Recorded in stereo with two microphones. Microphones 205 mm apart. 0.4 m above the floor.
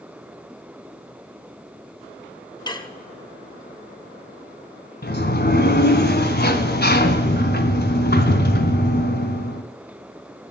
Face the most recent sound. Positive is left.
turn(degrees=50)  # may be behind; listen again after turning